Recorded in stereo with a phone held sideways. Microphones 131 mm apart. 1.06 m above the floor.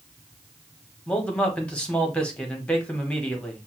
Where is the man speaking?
10° left (ahead or behind), 1.1 m.